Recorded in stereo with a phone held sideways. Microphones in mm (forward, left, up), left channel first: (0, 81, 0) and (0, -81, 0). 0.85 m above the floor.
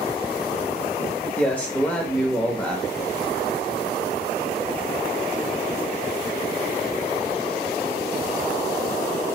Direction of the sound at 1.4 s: 10° left (ahead or behind).